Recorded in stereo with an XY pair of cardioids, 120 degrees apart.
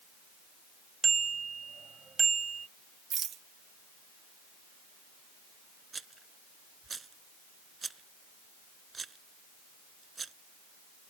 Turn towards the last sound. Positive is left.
turn(degrees=-30)